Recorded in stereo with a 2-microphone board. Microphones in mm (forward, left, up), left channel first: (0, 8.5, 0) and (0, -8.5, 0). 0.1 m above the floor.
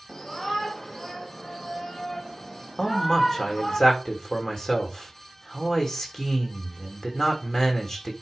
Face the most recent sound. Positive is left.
turn(degrees=35)  # may be behind; listen again after turning